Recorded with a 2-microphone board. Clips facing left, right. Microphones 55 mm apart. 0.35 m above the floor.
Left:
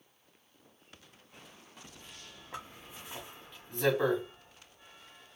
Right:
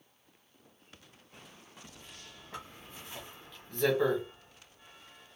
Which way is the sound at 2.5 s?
15° left (ahead or behind).